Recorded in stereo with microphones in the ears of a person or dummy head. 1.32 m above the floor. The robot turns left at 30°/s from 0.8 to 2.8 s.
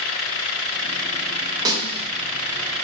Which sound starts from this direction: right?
A snare drum, at 1.6 s.